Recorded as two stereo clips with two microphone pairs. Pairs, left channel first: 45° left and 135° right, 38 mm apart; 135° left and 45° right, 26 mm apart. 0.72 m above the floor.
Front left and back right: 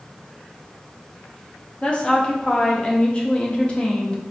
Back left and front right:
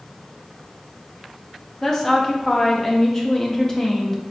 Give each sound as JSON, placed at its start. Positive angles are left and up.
{"t": 1.8, "sound": "a woman speaking", "azimuth_deg": 90, "distance_m": 0.6}